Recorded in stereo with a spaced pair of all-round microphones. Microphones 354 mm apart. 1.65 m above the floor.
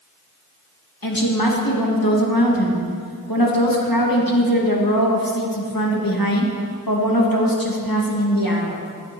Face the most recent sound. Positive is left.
turn(degrees=70)  # may be behind; listen again after turning